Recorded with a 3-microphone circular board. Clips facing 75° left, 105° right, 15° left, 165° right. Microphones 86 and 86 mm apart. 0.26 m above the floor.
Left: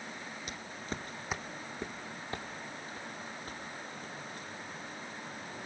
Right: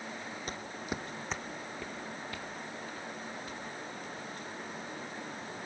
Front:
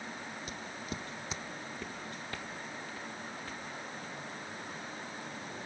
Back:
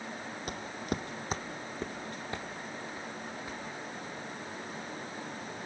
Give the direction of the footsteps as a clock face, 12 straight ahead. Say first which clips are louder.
Right 3 dB, back 9 dB; 5 o'clock.